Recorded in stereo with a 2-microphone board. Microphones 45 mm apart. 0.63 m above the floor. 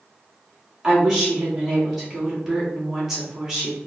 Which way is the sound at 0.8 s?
5° right (ahead or behind).